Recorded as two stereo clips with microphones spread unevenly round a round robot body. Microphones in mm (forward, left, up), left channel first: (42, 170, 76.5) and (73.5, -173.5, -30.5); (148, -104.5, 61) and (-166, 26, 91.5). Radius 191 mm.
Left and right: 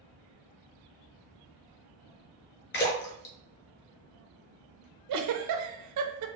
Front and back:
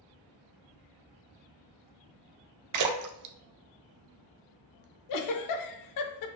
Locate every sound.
2.7 s a splash: 165° left, 0.6 m
5.1 s a giggle: 50° right, 0.6 m